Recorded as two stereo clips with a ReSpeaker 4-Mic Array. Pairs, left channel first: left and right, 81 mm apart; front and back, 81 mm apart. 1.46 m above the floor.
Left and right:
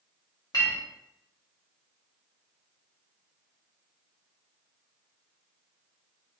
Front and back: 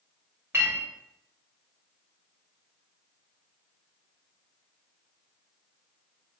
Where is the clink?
120° left, 1.2 m.